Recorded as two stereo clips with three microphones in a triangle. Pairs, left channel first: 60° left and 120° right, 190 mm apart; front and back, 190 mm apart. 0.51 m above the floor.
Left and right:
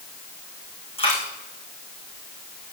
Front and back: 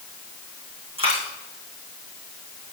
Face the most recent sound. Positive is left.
turn(degrees=120)